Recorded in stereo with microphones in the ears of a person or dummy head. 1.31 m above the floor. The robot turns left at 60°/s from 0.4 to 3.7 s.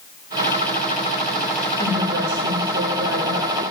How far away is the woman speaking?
About 1.2 m.